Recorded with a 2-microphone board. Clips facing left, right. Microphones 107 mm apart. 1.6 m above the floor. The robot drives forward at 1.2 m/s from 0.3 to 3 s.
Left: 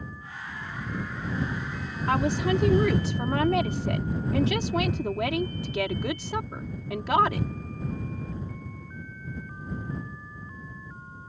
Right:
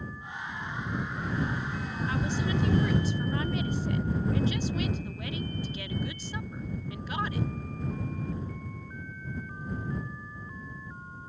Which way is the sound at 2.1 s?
70° left (ahead or behind).